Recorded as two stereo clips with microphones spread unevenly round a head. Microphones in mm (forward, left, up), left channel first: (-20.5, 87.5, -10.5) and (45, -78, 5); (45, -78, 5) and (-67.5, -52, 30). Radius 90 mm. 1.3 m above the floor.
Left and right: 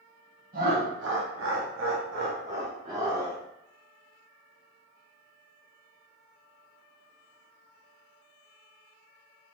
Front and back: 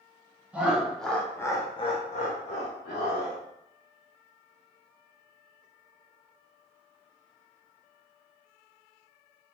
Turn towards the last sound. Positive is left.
turn(degrees=0)